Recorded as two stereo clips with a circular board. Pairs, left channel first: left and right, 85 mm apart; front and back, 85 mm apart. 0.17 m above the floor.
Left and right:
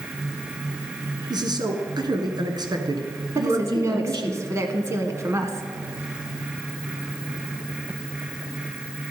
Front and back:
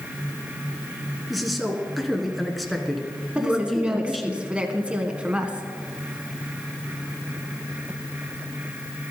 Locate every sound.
1.3 s a man speaking: 90° right, 1.6 m
3.4 s a woman speaking: 115° right, 1.4 m